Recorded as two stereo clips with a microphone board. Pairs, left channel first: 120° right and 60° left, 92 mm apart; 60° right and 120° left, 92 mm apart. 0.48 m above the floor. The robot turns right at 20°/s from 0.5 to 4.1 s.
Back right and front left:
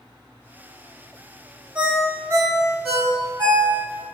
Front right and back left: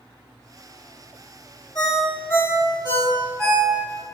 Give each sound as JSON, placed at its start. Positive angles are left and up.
{"t": 1.8, "sound": "a ringtone", "azimuth_deg": -15, "distance_m": 1.1}